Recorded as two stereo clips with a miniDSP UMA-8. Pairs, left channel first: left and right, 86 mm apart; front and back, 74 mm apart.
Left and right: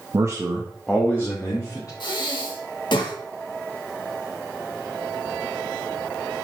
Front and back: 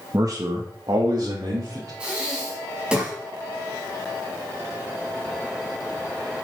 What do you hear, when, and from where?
0.1 s a man speaking: 135° right, 1.1 m; by 1.9 s 140° left, 2.5 m
2.0 s breathing: 105° left, 2 m